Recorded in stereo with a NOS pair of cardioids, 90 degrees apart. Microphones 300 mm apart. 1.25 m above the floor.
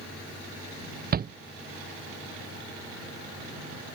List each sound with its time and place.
1.1 s a shout: 30° right